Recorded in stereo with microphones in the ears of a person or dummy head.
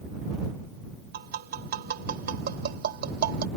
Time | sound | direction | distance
1.1 | tapping | 55° right (ahead or behind) | ?